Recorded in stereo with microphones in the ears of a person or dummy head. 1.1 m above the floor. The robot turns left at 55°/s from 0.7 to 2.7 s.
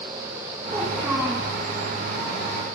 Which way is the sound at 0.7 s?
160° right.